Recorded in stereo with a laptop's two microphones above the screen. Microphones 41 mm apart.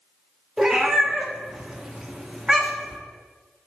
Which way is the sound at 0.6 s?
10° right (ahead or behind).